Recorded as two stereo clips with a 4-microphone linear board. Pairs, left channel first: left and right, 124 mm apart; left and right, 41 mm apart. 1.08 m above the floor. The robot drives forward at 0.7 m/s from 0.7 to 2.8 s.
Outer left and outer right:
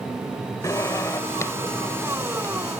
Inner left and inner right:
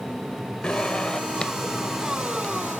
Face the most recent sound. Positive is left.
turn(degrees=20)  # may be behind; listen again after turning